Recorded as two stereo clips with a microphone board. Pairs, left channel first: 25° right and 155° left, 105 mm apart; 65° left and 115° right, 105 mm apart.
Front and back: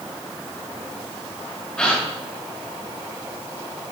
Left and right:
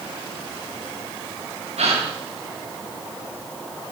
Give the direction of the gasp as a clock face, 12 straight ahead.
3 o'clock.